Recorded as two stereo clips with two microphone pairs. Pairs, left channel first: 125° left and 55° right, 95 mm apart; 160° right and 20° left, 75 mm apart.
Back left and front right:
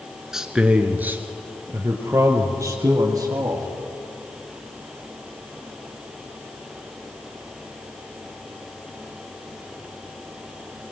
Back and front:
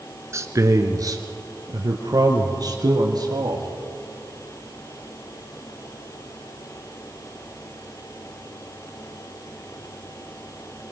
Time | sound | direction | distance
0.3 | a man speaking | 30° left | 1.6 m